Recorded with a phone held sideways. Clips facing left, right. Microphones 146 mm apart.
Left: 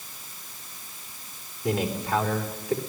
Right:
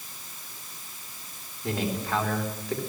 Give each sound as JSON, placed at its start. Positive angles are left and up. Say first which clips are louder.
{"t": 1.6, "sound": "a man speaking", "louder": "left 3 dB", "side_deg": 15, "distance_m": 4.0}